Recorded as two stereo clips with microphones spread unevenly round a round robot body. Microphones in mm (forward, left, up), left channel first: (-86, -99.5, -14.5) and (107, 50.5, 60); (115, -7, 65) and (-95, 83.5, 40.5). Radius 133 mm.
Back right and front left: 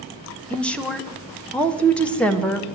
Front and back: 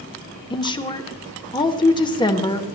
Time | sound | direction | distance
0.5 | a woman speaking | 85° right | 1.1 m